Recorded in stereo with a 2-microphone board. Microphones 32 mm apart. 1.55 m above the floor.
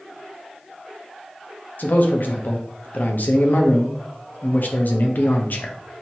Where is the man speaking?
65° left (ahead or behind), 0.9 m.